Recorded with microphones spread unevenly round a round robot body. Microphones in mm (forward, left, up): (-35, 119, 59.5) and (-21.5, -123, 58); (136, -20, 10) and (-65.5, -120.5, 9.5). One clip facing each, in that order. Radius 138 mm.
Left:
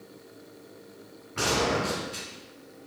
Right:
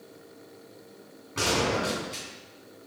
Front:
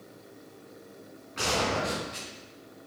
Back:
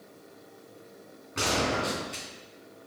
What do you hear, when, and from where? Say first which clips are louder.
1.4 s a gunshot: even, back 1 dB; 125° right, 3.5 m